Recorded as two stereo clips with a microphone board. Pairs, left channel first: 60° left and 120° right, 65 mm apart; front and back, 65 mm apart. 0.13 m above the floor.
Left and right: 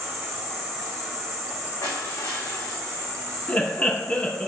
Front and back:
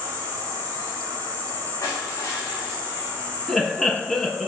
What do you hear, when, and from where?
0.0 s an insect: 155° left, 4 m
1.8 s crushing: 40° left, 5 m
3.5 s laughter: 80° left, 1.5 m